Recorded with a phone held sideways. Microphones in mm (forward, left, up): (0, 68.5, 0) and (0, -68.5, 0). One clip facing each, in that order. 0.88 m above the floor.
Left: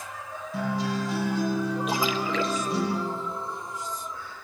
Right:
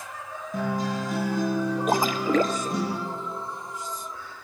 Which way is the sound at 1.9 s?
45° right (ahead or behind).